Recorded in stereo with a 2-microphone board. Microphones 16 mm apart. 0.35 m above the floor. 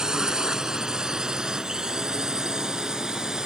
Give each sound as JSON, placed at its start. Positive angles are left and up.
{"t": 0.0, "sound": "a drone", "side_deg": -50}